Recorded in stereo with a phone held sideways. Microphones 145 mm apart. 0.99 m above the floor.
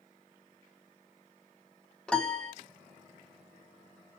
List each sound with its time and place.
2.1 s a piano: 5° left (ahead or behind), 0.6 m